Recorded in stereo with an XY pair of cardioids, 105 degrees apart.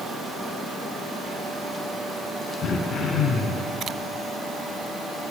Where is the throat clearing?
65° left, 3 m.